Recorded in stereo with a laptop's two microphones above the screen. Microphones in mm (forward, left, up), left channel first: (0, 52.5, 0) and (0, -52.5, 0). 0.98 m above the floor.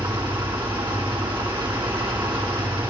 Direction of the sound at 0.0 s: 50° right (ahead or behind).